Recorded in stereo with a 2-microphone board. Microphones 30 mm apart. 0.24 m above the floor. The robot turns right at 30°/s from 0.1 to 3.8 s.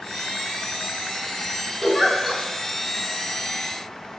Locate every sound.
1.8 s a giggle: 15° left (ahead or behind), 0.6 m; by 2.4 s 5° left (ahead or behind), 0.6 m